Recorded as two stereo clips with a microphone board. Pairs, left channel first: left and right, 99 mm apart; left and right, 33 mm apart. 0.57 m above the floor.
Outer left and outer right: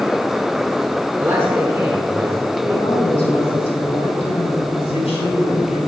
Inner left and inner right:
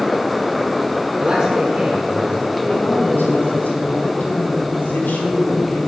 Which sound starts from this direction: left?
A woman speaking, at 2.6 s.